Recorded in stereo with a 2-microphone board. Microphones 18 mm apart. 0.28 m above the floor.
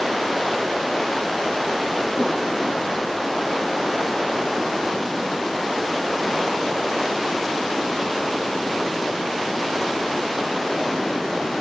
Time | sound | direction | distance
2.2 | a snare drum | 65° left (ahead or behind) | 7.5 m